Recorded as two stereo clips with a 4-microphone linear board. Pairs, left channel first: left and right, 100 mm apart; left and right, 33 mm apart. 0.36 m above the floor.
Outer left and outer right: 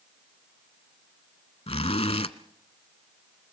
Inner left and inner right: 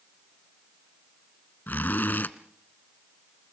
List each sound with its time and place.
1.7 s a zipper: 85° left, 0.8 m